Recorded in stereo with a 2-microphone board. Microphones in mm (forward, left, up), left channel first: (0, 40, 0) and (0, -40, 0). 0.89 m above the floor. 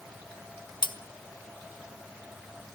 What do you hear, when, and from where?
0.8 s cutlery clinking: 70° left (ahead or behind), 0.8 m